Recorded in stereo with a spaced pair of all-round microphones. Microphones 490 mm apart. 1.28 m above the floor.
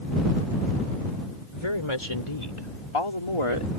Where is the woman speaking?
75° left (ahead or behind); by 3.7 s 80° left.